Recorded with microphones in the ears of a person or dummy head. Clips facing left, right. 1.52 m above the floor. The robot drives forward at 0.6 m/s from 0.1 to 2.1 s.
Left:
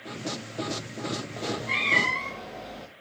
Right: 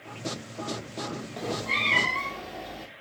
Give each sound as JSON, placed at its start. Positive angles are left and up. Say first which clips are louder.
{"t": 1.4, "sound": "a cat meowing", "louder": "even", "side_deg": 0, "distance_m": 0.9}